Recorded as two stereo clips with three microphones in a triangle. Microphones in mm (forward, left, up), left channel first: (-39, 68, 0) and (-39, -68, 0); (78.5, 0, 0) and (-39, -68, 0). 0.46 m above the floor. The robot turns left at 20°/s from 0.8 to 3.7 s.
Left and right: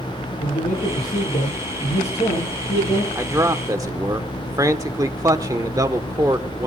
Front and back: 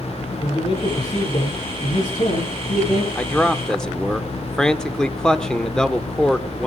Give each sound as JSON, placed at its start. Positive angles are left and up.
{"t": 0.4, "sound": "a man speaking", "azimuth_deg": 90, "distance_m": 10.0}
{"t": 3.1, "sound": "a man speaking", "azimuth_deg": -40, "distance_m": 1.2}